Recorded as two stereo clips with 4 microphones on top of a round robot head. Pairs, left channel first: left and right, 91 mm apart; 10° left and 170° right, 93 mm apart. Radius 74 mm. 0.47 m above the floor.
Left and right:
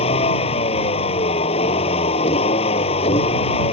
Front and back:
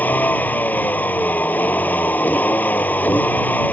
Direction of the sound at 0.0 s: 80° left.